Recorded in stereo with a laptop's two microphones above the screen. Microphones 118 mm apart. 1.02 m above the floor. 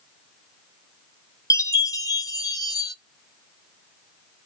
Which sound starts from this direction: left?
A chime, at 1.5 s.